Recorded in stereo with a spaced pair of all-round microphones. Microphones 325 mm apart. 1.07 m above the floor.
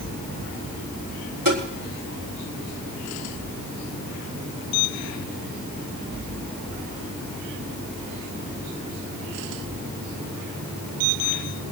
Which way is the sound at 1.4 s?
85° right.